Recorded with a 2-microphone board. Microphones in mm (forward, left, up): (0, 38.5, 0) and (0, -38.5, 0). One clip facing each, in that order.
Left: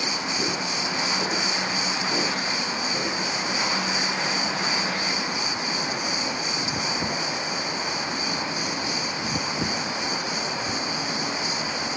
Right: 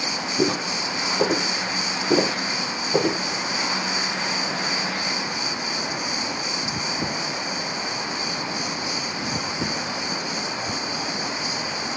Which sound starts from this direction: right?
Footsteps, at 0.4 s.